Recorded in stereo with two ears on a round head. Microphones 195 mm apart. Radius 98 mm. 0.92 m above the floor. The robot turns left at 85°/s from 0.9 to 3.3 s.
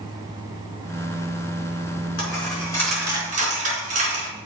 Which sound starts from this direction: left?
A dropped coin, at 2.2 s.